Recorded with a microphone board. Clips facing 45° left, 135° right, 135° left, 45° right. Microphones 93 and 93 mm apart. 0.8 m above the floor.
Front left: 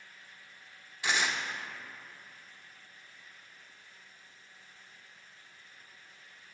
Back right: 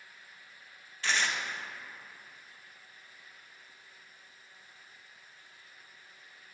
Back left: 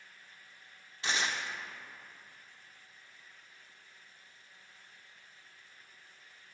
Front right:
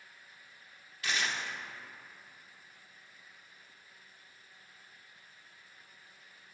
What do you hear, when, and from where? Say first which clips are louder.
1.0 s tearing paper: even, back left 1 dB; 110° left, 0.5 m